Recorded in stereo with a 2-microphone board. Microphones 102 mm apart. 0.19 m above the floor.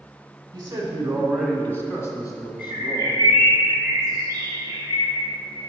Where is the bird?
30° right (ahead or behind), 3 m.